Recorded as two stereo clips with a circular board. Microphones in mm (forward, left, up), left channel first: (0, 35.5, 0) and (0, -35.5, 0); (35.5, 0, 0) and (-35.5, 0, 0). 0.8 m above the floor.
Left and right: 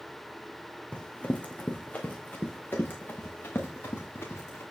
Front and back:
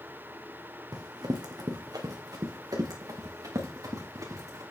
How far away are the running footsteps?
About 2.5 m.